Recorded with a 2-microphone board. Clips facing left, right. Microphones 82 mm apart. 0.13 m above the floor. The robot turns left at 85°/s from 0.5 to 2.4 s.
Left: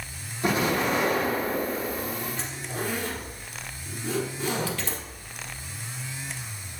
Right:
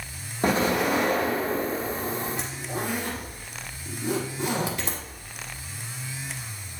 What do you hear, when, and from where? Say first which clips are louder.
0.4 s an explosion: right 2 dB; 135° right, 5 m; by 2.1 s 85° left, 5 m
2.4 s a zipper: right 2 dB; 15° right (ahead or behind), 3.5 m; by 5.0 s 20° right (ahead or behind), 3.5 m